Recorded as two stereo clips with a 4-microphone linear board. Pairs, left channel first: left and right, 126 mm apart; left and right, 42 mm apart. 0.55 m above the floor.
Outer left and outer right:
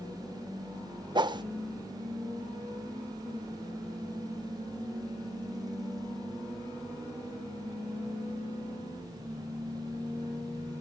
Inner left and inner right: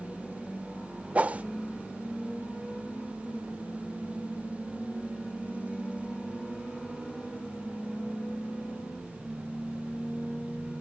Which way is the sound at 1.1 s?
35° right (ahead or behind).